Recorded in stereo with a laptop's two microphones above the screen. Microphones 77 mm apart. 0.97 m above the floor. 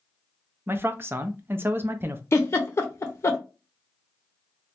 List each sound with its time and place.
0.7 s a man speaking: 30° right (ahead or behind), 0.5 m
2.3 s a giggle: 35° left (ahead or behind), 0.6 m